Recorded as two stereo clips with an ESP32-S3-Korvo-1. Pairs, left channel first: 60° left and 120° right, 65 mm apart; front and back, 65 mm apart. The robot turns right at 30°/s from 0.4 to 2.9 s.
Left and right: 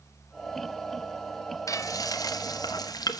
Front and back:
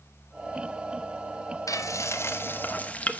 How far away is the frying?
About 1.0 m.